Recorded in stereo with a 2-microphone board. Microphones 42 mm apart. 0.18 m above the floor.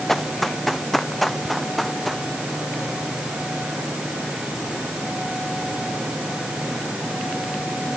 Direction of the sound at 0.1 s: 5° left (ahead or behind).